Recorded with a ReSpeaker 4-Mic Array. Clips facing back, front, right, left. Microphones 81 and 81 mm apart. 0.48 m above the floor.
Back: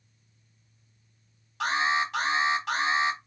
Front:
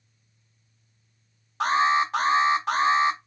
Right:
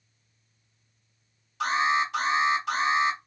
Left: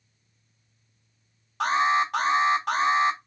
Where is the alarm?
55° left, 2.5 m.